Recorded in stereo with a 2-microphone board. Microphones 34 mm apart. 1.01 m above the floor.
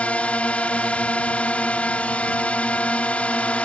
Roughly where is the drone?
Left.